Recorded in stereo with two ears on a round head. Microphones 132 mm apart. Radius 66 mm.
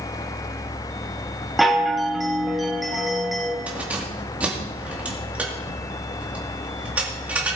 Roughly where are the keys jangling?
Centre.